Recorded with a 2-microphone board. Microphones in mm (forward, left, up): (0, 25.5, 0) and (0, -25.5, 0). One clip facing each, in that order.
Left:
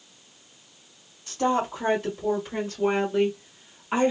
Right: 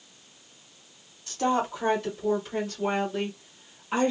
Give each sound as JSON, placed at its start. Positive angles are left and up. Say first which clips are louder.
{"t": 1.3, "sound": "a woman speaking", "louder": "left 1 dB", "side_deg": 15, "distance_m": 1.9}